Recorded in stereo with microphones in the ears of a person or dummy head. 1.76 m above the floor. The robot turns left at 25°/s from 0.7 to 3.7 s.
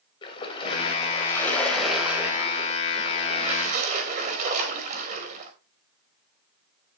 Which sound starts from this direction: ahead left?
A splash, at 0.2 s.